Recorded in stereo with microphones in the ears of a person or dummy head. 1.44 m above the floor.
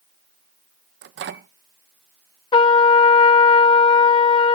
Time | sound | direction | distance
1.0 | a microwave | 55° right (ahead or behind) | 0.8 m
2.5 | a trumpet | 25° left (ahead or behind) | 0.8 m